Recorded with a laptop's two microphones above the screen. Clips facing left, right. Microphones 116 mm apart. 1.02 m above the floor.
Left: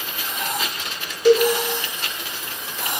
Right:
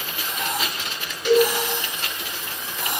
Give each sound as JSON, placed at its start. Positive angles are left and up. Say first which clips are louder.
{"t": 1.2, "sound": "a cowbell", "louder": "left 3 dB", "side_deg": 40, "distance_m": 0.5}